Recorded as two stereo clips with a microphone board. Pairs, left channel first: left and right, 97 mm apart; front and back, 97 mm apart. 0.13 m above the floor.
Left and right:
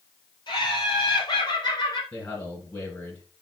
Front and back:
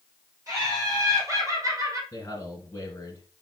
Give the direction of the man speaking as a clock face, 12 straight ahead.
11 o'clock.